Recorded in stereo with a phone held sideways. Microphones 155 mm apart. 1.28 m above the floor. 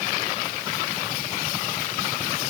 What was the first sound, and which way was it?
Only background noise.